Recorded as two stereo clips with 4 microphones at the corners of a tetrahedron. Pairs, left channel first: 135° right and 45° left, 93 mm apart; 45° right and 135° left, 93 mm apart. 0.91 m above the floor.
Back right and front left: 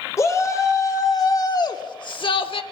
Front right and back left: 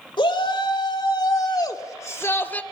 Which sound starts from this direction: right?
A shout, at 0.2 s.